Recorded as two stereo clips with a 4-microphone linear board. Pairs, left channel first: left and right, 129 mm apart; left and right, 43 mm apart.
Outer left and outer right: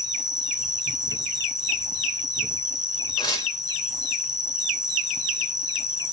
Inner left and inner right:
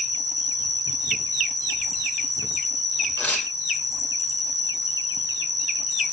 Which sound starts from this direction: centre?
An insect, at 0.0 s.